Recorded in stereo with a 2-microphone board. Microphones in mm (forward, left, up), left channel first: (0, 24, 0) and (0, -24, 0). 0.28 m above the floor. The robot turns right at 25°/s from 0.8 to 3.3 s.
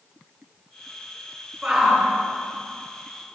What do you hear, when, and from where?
1.6 s a shout: 10° right (ahead or behind), 4 m; by 2.1 s 5° left (ahead or behind), 4 m